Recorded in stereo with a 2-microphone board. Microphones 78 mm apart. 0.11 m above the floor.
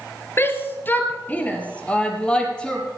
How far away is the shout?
About 2 m.